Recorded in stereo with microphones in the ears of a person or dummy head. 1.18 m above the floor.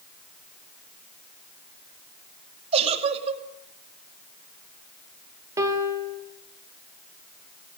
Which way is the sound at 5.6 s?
15° right (ahead or behind).